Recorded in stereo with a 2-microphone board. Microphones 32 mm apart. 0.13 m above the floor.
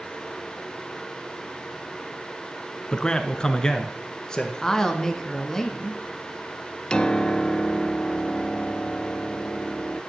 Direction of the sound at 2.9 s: 20° left (ahead or behind).